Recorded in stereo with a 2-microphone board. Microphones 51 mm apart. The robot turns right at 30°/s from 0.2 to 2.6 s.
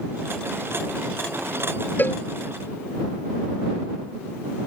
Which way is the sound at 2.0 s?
40° left (ahead or behind).